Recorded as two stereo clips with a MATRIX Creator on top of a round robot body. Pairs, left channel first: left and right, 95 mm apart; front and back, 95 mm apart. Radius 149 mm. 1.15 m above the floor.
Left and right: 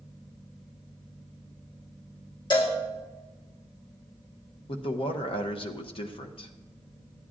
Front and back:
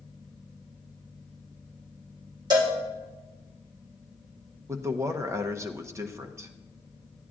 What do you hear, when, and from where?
2.5 s a cowbell: 135° left, 1.6 m
4.7 s a man speaking: 120° left, 0.9 m